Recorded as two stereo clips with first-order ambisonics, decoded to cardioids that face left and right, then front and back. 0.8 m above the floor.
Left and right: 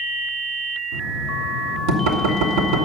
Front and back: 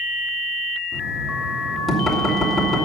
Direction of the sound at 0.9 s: 85° right.